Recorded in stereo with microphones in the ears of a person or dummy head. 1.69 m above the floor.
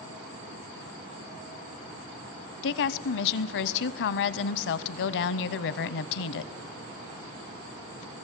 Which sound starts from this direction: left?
A woman speaking, at 2.6 s.